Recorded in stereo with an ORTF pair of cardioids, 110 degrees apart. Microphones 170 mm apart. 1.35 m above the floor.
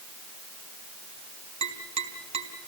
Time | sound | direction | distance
1.6 | tapping | 35° right | 3.5 m